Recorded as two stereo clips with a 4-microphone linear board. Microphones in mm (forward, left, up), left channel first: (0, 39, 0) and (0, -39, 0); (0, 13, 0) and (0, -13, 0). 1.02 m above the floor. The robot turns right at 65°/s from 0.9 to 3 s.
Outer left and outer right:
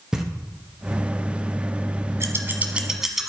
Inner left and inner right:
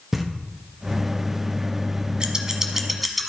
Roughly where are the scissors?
Right.